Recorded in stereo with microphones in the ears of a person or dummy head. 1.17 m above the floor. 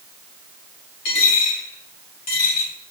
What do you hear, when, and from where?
1.1 s a dropped coin: 65° left (ahead or behind), 3.5 m